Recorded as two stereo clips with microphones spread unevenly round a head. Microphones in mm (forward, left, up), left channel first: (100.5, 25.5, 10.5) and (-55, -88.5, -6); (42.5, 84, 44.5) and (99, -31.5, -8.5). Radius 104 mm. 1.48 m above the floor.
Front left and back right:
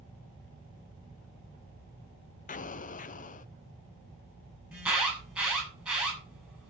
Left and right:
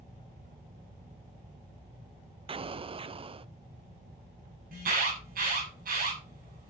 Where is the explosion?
15° right, 0.6 m.